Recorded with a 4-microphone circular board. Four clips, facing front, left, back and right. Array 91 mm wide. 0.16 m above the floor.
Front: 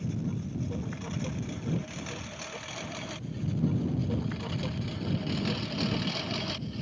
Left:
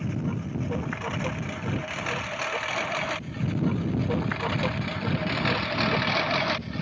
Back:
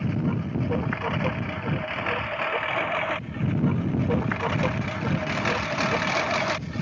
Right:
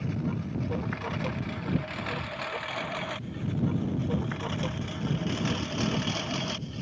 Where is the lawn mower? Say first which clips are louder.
Left 1 dB, back 7 dB; 175° left; by 6.8 s 145° left.